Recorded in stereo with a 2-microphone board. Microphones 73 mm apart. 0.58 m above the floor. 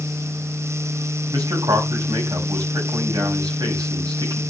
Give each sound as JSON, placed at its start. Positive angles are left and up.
{"t": 1.3, "sound": "a man speaking", "side_deg": -70, "distance_m": 4.5}